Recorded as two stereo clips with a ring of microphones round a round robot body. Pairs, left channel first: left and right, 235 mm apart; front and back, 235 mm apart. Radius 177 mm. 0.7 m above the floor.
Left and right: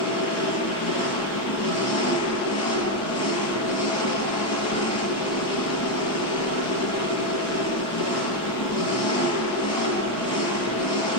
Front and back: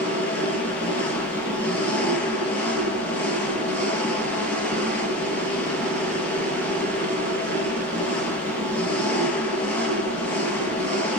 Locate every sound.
0.0 s an engine running: 85° left, 6.5 m